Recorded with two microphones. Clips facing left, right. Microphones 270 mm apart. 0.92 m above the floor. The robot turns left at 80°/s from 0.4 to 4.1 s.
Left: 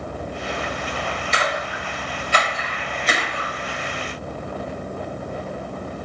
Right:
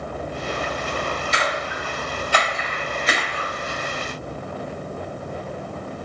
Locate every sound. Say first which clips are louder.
1.3 s a splash: even; 65° left (ahead or behind), 1.7 m; by 3.5 s 60° right (ahead or behind), 1.7 m